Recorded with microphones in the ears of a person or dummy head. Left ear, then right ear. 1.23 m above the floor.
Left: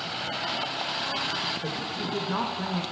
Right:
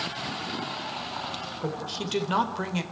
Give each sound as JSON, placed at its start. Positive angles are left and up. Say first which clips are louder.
{"t": 1.6, "sound": "a woman speaking", "louder": "left 1 dB", "side_deg": -80, "distance_m": 4.0}